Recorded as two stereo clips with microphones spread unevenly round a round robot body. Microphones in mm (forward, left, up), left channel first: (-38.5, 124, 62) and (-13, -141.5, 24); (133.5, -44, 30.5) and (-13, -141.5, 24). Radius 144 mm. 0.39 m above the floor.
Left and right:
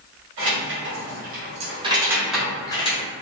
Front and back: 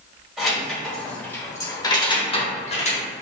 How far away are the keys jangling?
About 1.6 m.